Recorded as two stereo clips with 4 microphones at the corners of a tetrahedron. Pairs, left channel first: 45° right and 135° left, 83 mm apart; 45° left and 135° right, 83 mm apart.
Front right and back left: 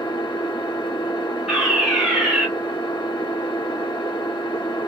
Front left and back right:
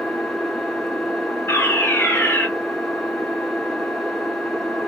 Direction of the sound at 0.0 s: 45° right.